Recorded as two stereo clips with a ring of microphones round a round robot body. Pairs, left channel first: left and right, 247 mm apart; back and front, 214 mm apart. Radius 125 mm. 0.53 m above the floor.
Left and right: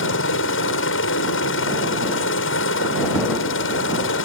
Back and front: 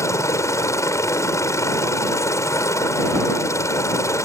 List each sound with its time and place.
0.0 s a helicopter: 105° left